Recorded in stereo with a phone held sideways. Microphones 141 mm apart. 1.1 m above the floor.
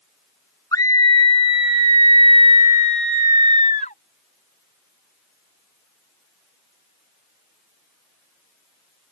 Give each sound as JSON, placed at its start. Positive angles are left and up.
{"t": 0.7, "sound": "a scream", "side_deg": 25}